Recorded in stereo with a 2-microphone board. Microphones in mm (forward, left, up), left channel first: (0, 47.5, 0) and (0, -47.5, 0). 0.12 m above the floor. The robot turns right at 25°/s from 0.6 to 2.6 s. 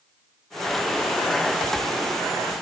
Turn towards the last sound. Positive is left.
No sound to turn to.